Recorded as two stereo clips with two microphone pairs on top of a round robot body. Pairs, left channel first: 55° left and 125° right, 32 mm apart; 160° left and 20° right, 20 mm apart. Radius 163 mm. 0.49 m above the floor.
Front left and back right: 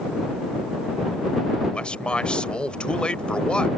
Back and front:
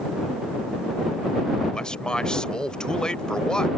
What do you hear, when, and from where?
1.7 s a man speaking: 115° left